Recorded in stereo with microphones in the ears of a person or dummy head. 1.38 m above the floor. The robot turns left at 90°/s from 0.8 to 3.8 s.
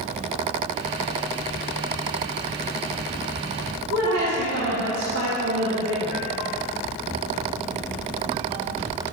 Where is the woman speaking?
75° right (ahead or behind), 1.6 m.